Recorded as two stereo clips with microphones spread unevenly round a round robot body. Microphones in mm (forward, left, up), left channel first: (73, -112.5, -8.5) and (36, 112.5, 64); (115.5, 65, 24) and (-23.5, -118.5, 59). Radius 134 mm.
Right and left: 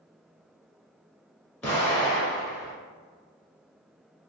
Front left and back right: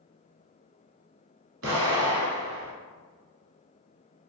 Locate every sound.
1.6 s an explosion: 170° right, 1.1 m